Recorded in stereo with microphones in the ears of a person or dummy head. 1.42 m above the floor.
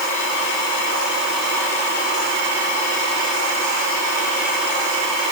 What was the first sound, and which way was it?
Only background noise.